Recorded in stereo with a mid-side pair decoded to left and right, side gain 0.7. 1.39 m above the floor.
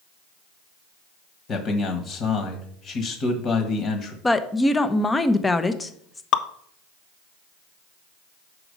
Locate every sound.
1.5 s a man speaking: 45° left, 1.5 m
4.2 s a woman speaking: 15° left, 0.7 m
6.3 s dripping: 55° left, 0.6 m